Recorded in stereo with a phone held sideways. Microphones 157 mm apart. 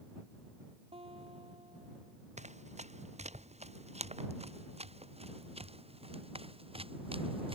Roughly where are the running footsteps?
Right.